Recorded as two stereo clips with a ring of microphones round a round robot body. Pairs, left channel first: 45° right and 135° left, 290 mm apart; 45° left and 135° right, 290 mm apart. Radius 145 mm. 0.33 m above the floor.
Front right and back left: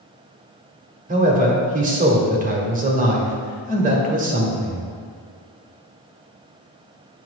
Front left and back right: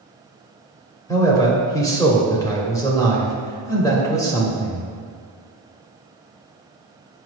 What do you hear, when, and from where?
1.1 s a man speaking: 110° left, 1.2 m